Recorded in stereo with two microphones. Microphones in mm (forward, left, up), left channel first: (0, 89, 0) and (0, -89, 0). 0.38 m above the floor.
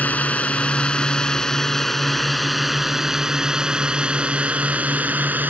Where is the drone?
10° left (ahead or behind); by 5.5 s 10° right (ahead or behind).